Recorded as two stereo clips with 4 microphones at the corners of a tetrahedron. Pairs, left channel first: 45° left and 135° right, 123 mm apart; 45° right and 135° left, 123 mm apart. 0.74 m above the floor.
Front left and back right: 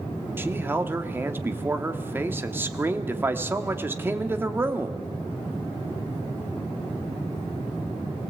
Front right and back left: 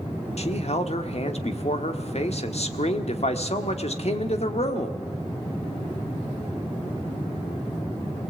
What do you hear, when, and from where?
0.4 s a man speaking: 65° right, 1.5 m